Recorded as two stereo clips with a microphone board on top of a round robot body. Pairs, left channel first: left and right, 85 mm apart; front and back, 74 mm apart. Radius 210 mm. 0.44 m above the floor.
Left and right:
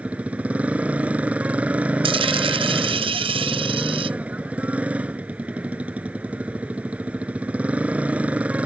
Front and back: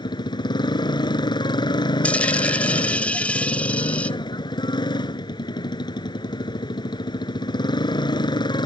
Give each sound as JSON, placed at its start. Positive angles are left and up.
{"t": 0.0, "sound": "a motorcycle", "azimuth_deg": -15}
{"t": 2.0, "sound": "a dropped coin", "azimuth_deg": -75}